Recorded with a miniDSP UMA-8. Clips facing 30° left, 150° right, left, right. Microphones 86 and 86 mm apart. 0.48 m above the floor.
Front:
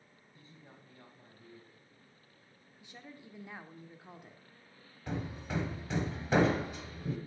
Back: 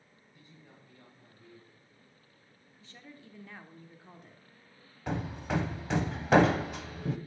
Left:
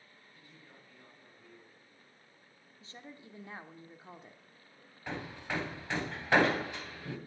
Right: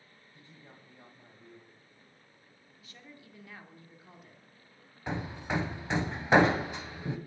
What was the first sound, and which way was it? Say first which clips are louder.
A man speaking: even, right 4 dB; 35° right.